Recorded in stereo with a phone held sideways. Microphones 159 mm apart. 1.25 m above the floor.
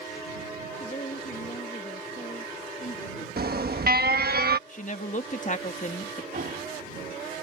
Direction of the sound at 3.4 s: 75° right (ahead or behind).